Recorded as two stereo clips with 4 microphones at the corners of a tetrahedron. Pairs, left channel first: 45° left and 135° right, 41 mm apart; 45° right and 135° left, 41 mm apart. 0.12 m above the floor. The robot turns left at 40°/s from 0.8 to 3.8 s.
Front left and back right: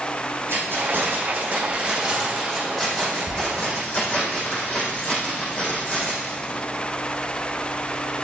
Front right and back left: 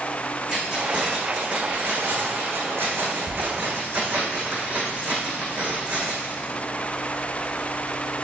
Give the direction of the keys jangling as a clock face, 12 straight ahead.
5 o'clock.